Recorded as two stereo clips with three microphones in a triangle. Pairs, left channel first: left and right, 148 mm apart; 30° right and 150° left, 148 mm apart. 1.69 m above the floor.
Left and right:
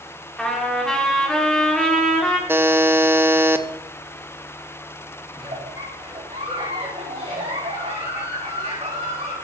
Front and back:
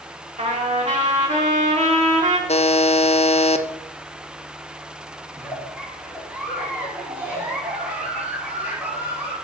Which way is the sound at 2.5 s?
20° right.